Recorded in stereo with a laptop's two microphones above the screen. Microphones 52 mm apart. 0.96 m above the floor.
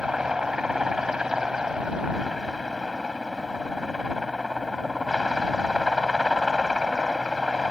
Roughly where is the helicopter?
Centre.